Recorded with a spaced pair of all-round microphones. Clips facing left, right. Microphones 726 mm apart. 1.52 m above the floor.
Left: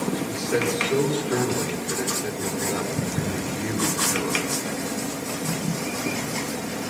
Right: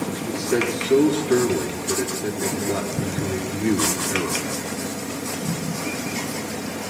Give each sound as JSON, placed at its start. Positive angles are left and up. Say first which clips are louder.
{"t": 0.1, "sound": "a man speaking", "louder": "right 1 dB", "side_deg": -75, "distance_m": 5.5}